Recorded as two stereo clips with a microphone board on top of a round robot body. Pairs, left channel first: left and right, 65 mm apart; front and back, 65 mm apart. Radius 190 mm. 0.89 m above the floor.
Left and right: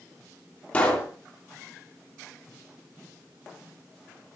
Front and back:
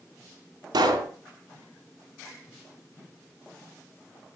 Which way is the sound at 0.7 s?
160° left.